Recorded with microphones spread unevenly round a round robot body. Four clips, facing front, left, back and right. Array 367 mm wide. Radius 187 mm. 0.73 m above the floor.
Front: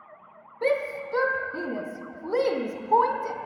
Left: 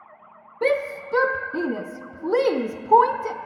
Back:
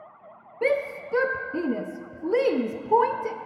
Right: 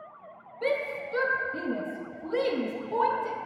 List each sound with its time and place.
0.6 s a shout: 125° left, 0.6 m